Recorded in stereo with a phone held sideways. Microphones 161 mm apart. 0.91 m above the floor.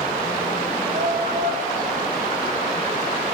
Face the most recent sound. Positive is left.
turn(degrees=-65)  # may be behind; listen again after turning